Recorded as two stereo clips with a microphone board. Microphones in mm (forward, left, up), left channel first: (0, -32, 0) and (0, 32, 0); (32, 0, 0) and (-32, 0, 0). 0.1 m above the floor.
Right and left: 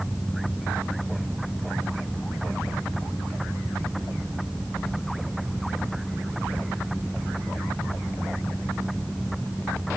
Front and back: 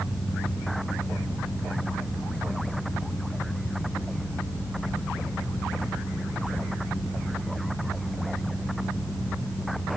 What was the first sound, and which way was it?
Only background noise.